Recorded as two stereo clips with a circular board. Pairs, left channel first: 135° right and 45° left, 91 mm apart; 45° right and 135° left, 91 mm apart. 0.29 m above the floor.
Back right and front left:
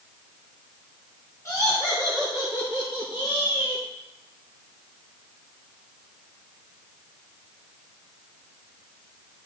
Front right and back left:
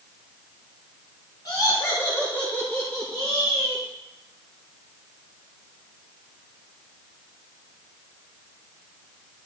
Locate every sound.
1.4 s laughter: 85° right, 3 m; by 3.8 s 145° right, 3 m